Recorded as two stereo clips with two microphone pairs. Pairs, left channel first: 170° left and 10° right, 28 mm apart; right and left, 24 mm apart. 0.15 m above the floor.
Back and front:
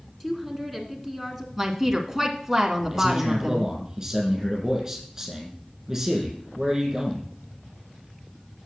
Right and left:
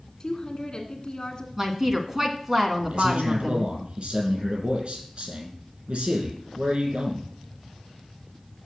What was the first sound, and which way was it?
A woman speaking, 110° right.